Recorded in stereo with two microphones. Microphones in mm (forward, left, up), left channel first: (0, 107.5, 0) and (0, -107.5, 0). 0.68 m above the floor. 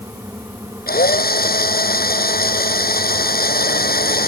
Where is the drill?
45° left (ahead or behind).